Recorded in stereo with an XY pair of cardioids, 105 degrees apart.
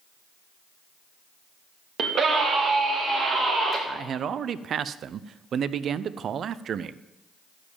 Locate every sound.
2.0 s a scream: 60° right, 2.5 m; by 3.8 s 50° right, 5.5 m
3.9 s a man speaking: 55° right, 0.6 m